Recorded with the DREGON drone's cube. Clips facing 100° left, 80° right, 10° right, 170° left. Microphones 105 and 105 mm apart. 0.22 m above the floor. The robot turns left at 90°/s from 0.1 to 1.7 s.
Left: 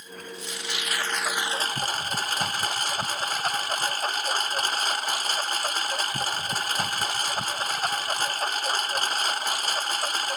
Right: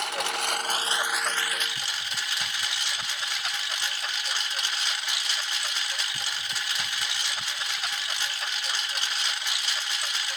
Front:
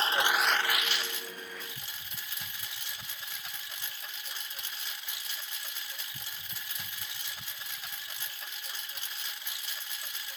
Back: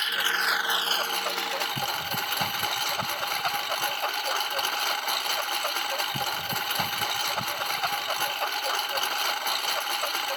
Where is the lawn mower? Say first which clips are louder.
Right 10 dB, front 2 dB; 70° right; by 10.4 s 145° left.